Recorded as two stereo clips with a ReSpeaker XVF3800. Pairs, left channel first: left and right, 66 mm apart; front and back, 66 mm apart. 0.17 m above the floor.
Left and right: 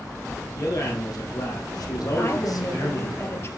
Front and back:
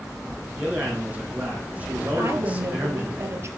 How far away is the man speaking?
About 5.5 m.